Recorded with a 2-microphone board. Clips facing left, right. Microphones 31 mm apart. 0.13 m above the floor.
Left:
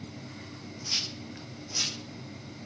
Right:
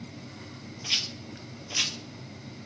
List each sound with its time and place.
0.8 s a rattle: 45° right (ahead or behind), 1.1 m